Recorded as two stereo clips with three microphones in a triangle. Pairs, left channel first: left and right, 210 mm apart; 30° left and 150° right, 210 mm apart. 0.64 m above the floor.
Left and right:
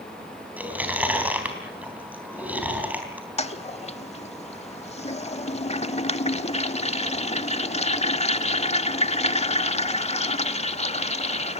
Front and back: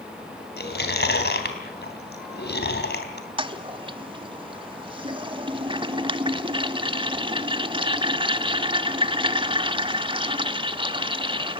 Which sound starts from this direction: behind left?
A toilet flushing, at 3.4 s.